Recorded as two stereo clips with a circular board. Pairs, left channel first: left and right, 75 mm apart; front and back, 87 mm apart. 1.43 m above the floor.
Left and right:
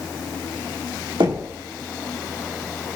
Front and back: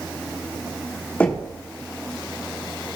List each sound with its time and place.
1.2 s knocking: 70° right, 1.4 m